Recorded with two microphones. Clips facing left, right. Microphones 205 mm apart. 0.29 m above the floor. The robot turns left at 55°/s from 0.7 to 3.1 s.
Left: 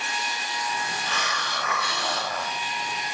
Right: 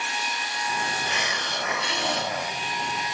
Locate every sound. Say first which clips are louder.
1.1 s a hiss: right 1 dB; 15° right (ahead or behind), 0.9 m